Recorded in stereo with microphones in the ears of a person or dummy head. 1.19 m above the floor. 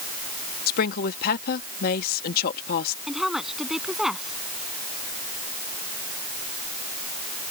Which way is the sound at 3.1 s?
Centre (ahead or behind).